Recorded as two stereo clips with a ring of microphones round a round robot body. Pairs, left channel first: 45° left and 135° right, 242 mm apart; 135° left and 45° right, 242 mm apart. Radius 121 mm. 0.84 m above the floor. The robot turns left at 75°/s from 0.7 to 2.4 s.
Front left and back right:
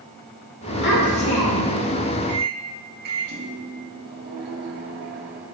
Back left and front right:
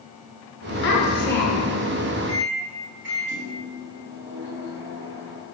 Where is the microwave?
80° right, 1.6 m; by 5.4 s 85° right, 1.6 m.